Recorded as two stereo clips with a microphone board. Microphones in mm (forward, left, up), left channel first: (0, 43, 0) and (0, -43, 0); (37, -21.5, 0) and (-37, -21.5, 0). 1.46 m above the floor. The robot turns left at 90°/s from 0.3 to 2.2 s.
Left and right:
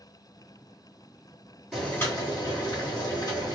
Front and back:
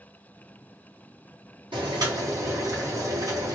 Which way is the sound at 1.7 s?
Straight behind.